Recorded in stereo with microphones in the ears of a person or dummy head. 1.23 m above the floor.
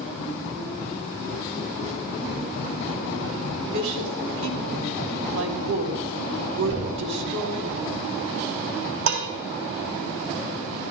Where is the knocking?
60° right (ahead or behind), 8 m.